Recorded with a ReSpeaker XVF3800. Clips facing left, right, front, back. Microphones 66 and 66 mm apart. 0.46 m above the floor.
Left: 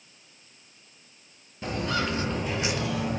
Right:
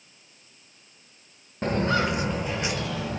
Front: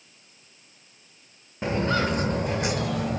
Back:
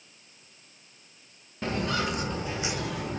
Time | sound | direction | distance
1.6 | footsteps | 65° right | 0.6 m